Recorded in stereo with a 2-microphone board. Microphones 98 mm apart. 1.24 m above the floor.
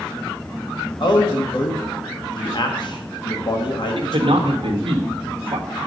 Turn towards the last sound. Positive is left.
turn(degrees=-65)  # may be behind; listen again after turning